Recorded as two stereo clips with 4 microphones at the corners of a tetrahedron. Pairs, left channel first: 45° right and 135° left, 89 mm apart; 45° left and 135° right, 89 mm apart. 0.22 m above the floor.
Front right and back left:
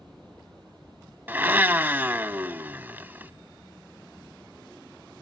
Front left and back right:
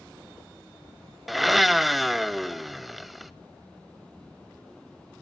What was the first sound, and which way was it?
A blender, 140° left.